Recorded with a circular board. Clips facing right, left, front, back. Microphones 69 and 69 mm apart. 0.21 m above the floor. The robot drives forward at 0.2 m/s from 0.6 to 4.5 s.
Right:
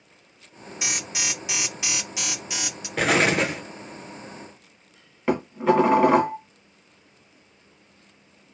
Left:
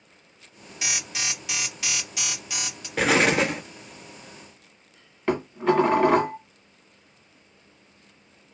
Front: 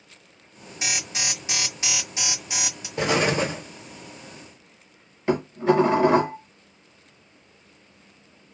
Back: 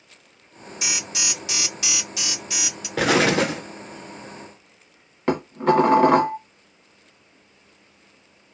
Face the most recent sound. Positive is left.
turn(degrees=-175)